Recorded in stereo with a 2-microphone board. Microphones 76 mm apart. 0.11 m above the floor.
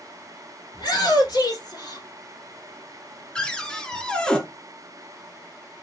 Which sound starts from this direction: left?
A shout, at 0.7 s.